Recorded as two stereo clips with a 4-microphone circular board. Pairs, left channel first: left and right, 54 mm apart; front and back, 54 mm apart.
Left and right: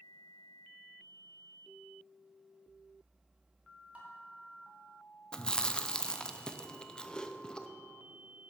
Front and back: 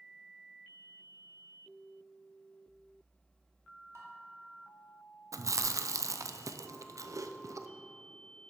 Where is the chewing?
165° left, 0.5 m.